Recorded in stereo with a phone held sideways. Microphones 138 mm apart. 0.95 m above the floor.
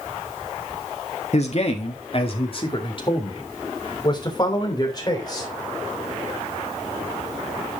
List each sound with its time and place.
1.3 s a man speaking: 50° left (ahead or behind), 1.7 m; by 5.5 s 30° left (ahead or behind), 4 m